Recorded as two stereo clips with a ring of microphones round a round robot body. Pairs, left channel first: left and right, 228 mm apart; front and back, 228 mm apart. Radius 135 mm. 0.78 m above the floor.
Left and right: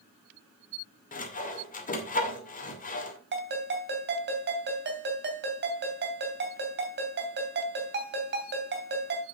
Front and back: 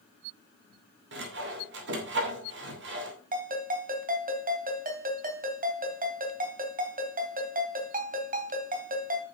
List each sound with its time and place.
1.1 s sawing: 140° left, 2.5 m
3.3 s a ringtone: 130° right, 2.5 m